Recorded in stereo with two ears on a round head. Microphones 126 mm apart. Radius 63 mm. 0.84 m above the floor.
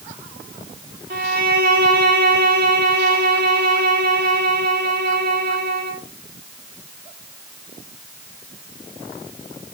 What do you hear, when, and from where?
1.1 s a violin: 65° right (ahead or behind), 1.9 m